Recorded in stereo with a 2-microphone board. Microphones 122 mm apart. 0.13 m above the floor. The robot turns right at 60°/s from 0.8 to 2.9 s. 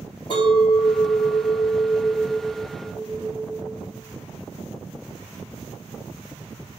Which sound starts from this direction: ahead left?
A clink, at 0.3 s.